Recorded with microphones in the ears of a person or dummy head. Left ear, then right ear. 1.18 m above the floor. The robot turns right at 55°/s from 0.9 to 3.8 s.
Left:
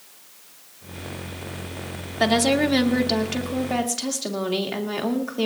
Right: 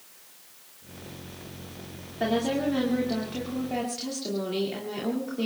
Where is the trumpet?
No trumpet in this recording.